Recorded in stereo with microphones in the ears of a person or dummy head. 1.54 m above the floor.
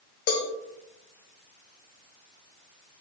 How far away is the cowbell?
About 1.3 m.